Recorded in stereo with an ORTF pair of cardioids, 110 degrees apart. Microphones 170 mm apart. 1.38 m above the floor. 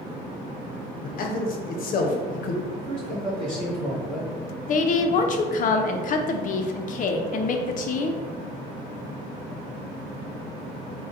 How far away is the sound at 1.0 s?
About 0.9 m.